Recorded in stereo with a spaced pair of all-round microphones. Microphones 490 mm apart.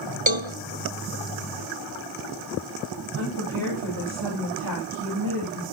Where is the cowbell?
65° right (ahead or behind), 1.3 m.